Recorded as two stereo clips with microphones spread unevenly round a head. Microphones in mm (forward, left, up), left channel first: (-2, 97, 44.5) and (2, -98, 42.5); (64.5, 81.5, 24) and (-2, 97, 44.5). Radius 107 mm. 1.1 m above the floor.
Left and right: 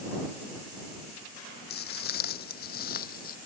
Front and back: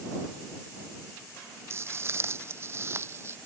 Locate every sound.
1.7 s footsteps: 130° left; by 3.4 s 135° left